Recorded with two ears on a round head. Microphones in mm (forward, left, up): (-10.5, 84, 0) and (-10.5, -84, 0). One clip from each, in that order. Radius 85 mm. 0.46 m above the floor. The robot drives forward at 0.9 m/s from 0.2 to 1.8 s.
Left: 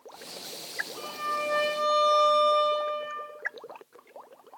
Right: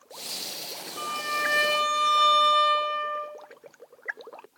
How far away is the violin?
About 4.5 m.